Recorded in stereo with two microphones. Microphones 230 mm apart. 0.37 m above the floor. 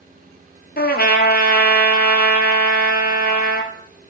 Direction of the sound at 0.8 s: 45° left (ahead or behind).